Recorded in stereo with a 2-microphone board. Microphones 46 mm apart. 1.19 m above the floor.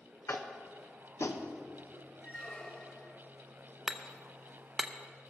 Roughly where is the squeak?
Left.